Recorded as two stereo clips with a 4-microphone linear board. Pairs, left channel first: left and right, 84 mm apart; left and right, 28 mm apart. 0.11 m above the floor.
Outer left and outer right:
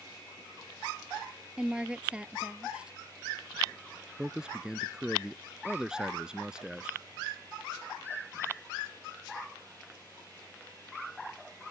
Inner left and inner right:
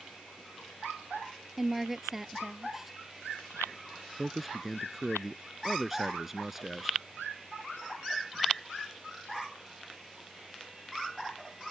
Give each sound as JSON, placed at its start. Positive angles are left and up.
{"t": 1.6, "sound": "a woman speaking", "side_deg": -15}
{"t": 4.2, "sound": "a man speaking", "side_deg": -10}